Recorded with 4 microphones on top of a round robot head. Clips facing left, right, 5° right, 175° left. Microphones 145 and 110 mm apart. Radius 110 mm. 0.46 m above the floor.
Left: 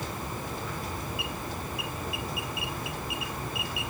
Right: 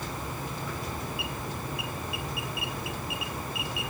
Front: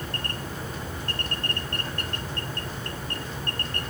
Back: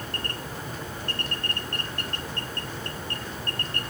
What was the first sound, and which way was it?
Only background noise.